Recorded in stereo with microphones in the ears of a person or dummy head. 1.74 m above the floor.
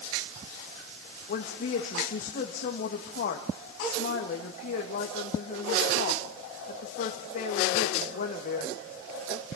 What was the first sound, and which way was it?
A woman speaking, 50° left (ahead or behind).